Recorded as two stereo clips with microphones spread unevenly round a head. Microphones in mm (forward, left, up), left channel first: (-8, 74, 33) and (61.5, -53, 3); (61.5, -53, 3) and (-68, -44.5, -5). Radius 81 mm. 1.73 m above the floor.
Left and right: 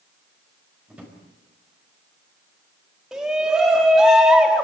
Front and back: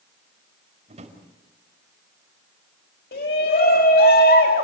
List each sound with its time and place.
0.9 s a drawer: 150° right, 4.5 m
3.1 s a shout: 25° left, 4 m